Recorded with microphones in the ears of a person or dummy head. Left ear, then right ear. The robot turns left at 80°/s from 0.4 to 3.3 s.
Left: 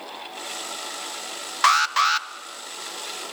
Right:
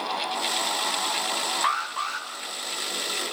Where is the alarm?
90° left, 1.3 m; by 2.3 s 40° left, 1.3 m.